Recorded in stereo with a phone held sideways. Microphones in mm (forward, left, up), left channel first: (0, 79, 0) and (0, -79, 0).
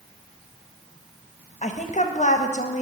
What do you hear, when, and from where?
1.6 s a woman speaking: 50° left (ahead or behind), 0.6 m